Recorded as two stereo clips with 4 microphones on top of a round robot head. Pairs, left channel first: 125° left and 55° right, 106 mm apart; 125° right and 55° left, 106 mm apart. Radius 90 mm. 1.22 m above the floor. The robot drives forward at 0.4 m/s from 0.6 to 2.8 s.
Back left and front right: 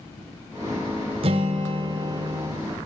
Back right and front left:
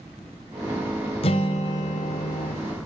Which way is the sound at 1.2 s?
90° right.